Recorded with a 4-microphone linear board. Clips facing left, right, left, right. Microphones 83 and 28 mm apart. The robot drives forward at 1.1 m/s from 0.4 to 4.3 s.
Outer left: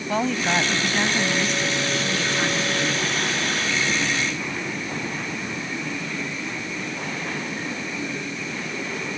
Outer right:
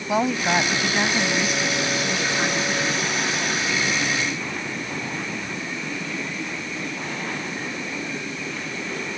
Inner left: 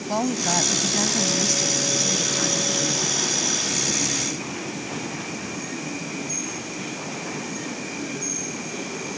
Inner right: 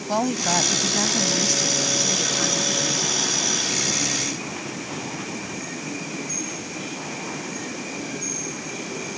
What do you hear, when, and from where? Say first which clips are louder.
0.1 s a woman speaking: outer right 2 dB, inner right 1 dB; 10° right (ahead or behind); by 3.1 s 5° right (ahead or behind)